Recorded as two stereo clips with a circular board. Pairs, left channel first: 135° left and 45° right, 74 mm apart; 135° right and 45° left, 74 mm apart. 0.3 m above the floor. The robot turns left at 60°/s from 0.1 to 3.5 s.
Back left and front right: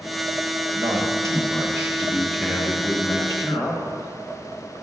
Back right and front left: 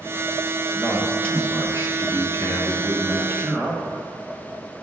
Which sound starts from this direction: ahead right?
A man speaking, at 0.7 s.